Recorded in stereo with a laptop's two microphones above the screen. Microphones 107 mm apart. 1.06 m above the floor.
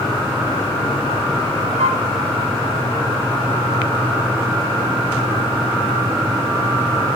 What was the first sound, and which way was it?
A flute, 70° right (ahead or behind).